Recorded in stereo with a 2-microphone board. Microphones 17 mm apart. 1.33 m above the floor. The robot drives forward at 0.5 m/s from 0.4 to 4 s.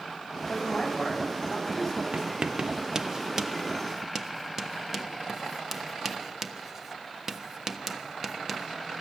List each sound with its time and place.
0.5 s a man speaking: centre (ahead or behind), 9 m
2.1 s writing: 40° right (ahead or behind), 0.6 m; by 8.7 s 15° right (ahead or behind), 1.3 m